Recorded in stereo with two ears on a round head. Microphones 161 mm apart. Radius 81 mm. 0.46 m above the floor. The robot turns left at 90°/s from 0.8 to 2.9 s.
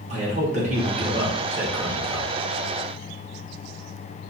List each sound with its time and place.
0.1 s a man speaking: 95° right, 0.9 m; by 2.3 s 130° left, 0.9 m